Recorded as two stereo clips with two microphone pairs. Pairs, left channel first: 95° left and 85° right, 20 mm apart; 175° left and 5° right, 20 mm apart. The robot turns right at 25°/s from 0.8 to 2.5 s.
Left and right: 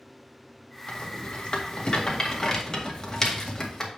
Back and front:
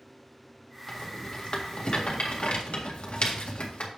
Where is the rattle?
120° left, 1.8 m; by 3.9 s 160° left, 1.8 m.